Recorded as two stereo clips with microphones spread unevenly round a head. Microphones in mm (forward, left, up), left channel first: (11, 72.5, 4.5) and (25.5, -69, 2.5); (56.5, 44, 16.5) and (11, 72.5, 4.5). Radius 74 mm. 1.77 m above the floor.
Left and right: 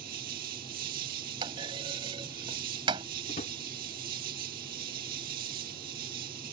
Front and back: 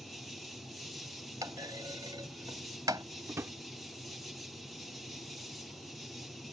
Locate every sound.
0.0 s an insect: 120° right
1.4 s a clunk: 145° right
3.3 s a drawer: 115° left